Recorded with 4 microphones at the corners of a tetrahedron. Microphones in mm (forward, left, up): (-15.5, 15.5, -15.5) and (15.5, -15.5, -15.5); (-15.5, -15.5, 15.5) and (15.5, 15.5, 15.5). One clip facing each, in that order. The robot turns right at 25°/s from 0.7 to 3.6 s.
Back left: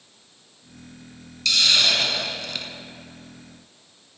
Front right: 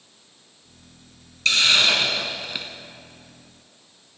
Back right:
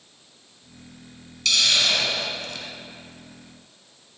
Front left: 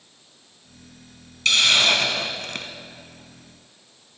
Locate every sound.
1.4 s a hiss: 5° right, 0.9 m; by 2.7 s 30° left, 0.9 m